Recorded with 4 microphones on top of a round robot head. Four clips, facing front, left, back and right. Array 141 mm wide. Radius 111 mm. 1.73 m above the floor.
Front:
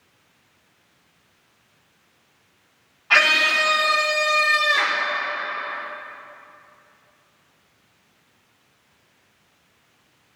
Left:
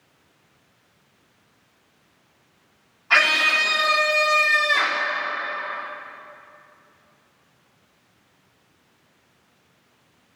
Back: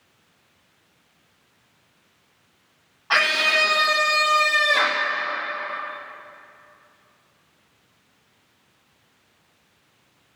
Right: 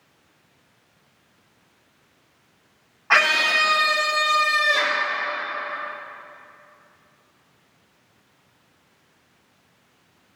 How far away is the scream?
About 1.9 m.